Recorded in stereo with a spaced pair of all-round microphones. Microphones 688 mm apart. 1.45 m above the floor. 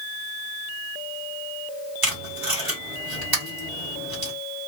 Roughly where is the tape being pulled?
Right.